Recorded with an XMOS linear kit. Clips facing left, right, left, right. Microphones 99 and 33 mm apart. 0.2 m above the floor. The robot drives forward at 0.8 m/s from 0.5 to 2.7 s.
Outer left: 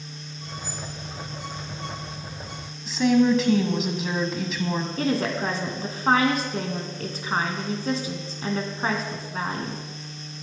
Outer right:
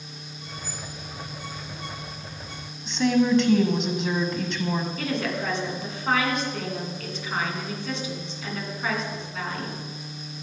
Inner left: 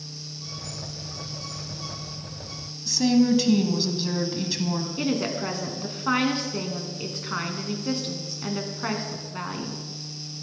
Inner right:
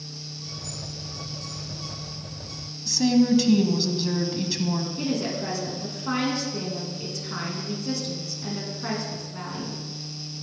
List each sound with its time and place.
2.9 s a woman speaking: 5° left (ahead or behind), 1.3 m
5.0 s a woman speaking: 40° left (ahead or behind), 2 m